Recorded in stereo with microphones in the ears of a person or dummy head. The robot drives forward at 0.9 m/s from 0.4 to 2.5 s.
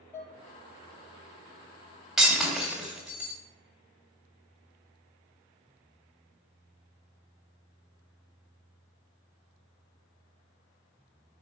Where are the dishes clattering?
15° left (ahead or behind), 4 m.